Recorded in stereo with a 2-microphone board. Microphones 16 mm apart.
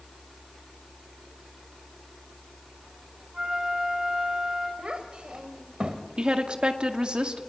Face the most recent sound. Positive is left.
turn(degrees=-65)  # may be behind; listen again after turning